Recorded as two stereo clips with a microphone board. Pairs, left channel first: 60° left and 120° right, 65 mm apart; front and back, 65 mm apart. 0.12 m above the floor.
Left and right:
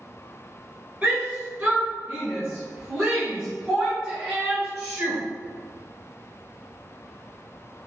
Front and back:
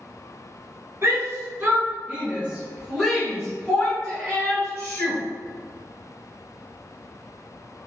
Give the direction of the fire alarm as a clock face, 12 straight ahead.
No fire alarm in this recording.